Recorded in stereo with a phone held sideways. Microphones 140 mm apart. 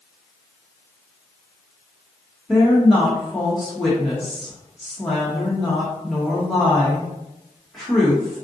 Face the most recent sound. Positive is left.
turn(degrees=0)  # may be behind; listen again after turning